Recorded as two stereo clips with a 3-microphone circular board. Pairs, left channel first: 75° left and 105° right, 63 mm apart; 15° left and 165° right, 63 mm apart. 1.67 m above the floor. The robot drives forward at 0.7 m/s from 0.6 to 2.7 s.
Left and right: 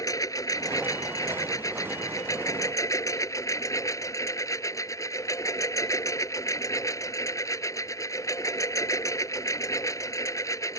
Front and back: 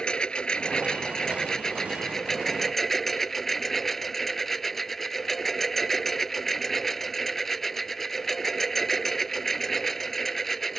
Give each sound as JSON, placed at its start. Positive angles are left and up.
{"t": 0.0, "sound": "a lawn mower", "azimuth_deg": 90}